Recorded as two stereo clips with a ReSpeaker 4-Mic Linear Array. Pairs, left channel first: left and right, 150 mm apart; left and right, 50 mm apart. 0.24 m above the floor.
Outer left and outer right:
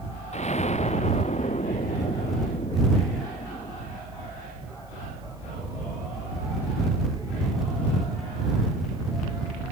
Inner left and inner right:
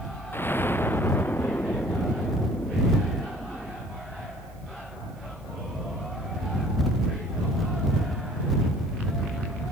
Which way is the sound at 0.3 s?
50° left (ahead or behind).